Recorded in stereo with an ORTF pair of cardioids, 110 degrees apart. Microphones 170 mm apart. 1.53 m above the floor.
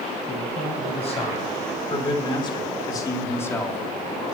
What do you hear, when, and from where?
0.2 s a man speaking: 45° left, 6.5 m; by 4.2 s straight ahead, 3 m